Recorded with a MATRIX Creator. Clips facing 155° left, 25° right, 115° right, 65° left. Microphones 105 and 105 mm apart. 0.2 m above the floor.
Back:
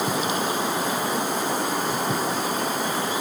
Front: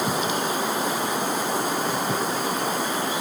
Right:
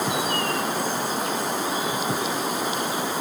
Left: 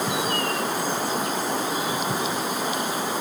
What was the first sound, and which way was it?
Only background noise.